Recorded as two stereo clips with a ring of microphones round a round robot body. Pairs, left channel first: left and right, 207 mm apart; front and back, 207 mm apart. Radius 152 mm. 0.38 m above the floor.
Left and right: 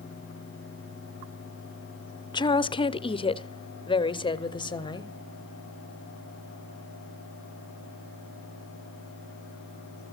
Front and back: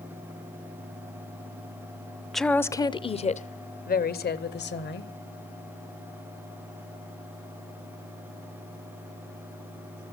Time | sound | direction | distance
2.3 | a woman speaking | 90° left | 0.8 m